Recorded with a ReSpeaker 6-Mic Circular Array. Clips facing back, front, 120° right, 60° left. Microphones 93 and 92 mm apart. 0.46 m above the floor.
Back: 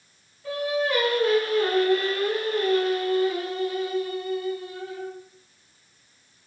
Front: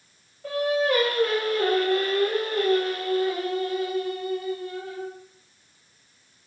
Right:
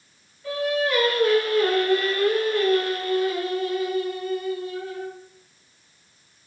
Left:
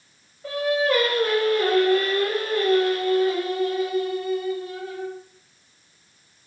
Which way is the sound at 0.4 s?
25° left.